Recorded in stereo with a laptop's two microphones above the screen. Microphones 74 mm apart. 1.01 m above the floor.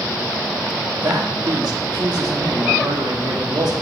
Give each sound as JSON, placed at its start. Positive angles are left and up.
{"t": 1.0, "sound": "a man speaking", "side_deg": -70, "distance_m": 1.3}